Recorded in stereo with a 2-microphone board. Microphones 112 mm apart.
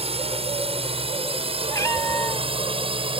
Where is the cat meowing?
25° left (ahead or behind).